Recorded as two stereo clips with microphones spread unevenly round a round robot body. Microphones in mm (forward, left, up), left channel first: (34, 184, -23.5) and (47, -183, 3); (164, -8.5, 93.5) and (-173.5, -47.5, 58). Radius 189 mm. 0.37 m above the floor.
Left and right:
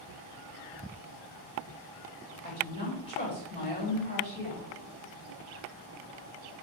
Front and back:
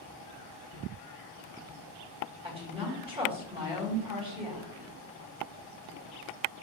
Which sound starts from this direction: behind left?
A woman speaking, at 2.4 s.